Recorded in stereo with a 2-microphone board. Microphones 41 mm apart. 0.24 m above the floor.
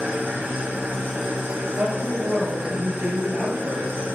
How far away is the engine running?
About 4 m.